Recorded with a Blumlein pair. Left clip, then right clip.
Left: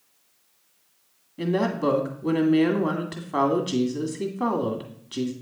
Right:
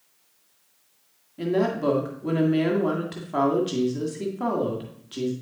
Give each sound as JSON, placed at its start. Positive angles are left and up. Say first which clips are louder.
{"t": 1.4, "sound": "a woman speaking", "louder": "right 1 dB", "azimuth_deg": 5, "distance_m": 1.8}